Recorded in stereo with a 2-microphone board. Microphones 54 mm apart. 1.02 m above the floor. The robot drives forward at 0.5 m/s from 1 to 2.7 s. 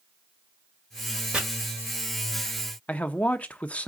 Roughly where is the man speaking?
Left.